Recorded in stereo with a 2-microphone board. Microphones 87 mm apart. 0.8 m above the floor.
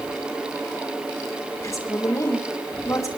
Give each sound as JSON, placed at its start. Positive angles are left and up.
{"t": 1.6, "sound": "a woman speaking", "side_deg": 40, "distance_m": 2.5}